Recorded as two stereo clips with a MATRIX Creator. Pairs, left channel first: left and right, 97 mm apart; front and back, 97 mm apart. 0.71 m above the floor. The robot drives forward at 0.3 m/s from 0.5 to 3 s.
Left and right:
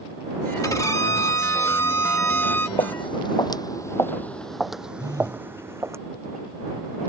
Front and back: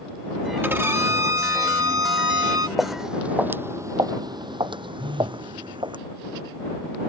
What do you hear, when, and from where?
0.6 s a violin: 125° left; by 2.7 s 150° left
2.8 s footsteps: 85° left; by 6.0 s 150° right
5.0 s a phone buzzing: 145° right